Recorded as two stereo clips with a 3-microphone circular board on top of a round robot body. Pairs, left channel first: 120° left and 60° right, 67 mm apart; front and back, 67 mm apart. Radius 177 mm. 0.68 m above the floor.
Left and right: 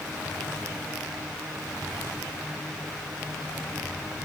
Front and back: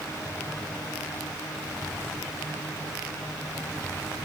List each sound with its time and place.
Only background noise.